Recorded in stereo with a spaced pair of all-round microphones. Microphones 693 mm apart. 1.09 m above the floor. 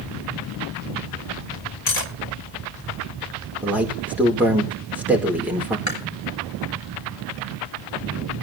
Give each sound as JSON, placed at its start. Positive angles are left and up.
{"t": 1.9, "sound": "cutlery clinking", "side_deg": 70, "distance_m": 1.4}
{"t": 3.6, "sound": "a man speaking", "side_deg": 0, "distance_m": 4.0}
{"t": 5.9, "sound": "chewing", "side_deg": 25, "distance_m": 3.5}